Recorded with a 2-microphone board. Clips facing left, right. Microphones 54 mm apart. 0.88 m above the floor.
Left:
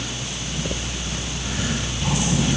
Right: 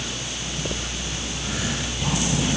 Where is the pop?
No pop in this recording.